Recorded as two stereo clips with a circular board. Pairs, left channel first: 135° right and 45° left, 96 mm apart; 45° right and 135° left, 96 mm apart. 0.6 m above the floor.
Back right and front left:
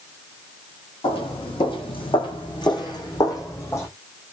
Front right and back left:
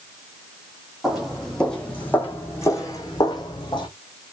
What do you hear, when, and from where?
1.0 s footsteps: 140° right, 1.6 m; by 3.9 s 75° right, 1.6 m